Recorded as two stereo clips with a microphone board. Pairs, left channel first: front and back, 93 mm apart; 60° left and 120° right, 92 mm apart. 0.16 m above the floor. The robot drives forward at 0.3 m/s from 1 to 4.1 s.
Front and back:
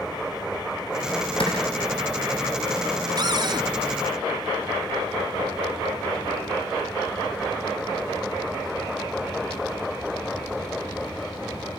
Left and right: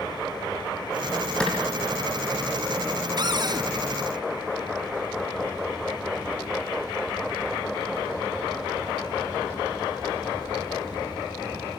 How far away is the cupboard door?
About 1.5 m.